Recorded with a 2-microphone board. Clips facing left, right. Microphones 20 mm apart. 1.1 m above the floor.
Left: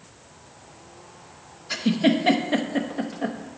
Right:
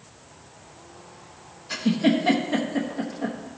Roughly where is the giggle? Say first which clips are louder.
Left 1 dB; left.